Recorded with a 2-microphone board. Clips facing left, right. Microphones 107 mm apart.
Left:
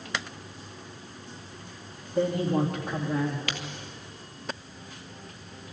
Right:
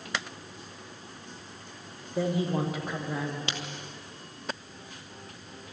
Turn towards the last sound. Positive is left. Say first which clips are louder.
# left 1 dB
turn(degrees=-25)  # may be behind; listen again after turning